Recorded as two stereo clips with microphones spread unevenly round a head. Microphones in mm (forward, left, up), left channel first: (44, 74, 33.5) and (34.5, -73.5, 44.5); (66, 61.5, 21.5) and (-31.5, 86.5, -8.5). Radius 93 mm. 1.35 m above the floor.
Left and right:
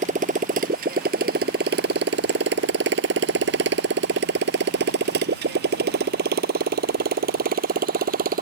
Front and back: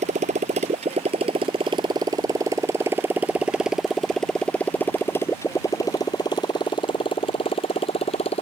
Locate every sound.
0.0 s a motorcycle: 145° right; by 8.4 s 70° right